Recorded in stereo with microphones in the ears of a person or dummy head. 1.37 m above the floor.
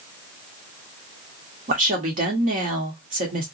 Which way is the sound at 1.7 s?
45° right (ahead or behind).